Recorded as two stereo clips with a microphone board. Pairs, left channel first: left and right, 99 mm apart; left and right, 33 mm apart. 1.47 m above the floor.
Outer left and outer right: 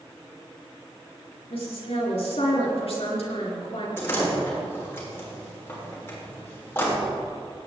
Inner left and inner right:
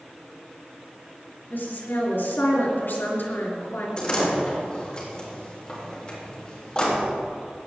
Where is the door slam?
25° left (ahead or behind), 4 m.